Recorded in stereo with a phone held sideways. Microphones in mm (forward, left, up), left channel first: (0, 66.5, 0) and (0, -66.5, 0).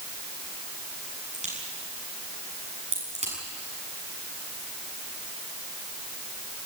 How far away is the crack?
About 7.5 m.